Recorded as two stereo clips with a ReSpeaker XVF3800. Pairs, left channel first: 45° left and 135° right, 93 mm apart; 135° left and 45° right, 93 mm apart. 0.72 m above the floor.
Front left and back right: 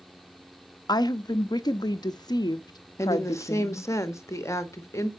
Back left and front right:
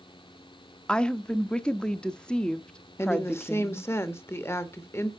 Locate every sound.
0.9 s a woman speaking: 60° left, 0.7 m
3.0 s a woman speaking: 85° left, 1.2 m